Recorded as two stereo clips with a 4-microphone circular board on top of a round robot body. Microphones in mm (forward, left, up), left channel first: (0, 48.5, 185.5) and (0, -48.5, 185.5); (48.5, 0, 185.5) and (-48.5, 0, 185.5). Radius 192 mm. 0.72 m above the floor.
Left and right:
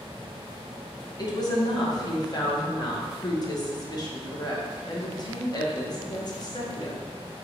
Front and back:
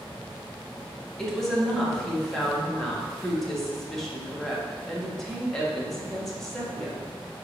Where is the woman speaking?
85° left, 1.3 m.